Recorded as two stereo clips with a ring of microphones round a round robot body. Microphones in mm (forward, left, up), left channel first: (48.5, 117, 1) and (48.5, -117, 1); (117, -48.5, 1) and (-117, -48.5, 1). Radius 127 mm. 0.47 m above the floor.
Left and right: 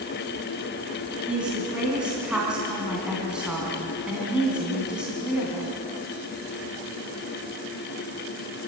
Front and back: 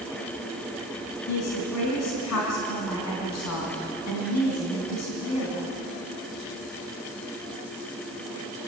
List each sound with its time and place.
1.3 s a woman speaking: 5° right, 4 m